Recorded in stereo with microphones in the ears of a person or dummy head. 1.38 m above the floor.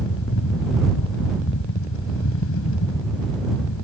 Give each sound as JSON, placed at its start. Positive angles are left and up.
{"t": 0.0, "sound": "a fan", "side_deg": 85}